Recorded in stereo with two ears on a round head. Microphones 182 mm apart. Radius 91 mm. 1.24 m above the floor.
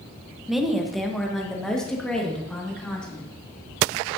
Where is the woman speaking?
Centre (ahead or behind), 0.9 m; by 3.3 s 5° left (ahead or behind), 2.5 m.